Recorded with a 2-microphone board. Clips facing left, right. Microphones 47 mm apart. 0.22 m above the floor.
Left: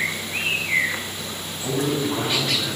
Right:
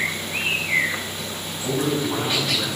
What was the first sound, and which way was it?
A man speaking, 10° left (ahead or behind).